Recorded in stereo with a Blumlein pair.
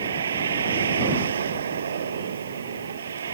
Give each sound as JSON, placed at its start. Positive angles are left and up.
{"t": 0.0, "sound": "a vehicle", "azimuth_deg": -70}